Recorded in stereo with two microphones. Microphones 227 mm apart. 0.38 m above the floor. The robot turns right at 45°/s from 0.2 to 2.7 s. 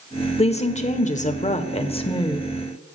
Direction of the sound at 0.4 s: 55° left.